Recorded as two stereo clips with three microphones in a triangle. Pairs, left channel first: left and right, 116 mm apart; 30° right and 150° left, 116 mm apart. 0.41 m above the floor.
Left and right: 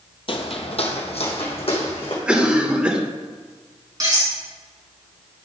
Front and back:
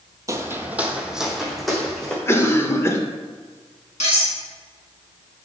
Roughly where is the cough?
Ahead right.